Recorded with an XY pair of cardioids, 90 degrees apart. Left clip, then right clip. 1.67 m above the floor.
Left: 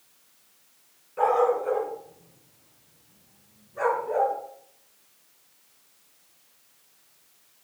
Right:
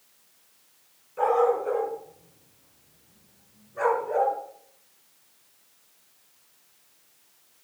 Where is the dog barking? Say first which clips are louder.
Even; 15° left, 5 m; by 4.3 s 20° right, 7.5 m.